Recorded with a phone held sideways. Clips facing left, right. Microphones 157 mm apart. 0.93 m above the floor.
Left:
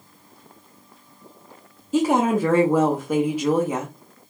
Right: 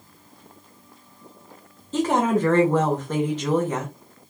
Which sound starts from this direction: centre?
A woman speaking, at 1.9 s.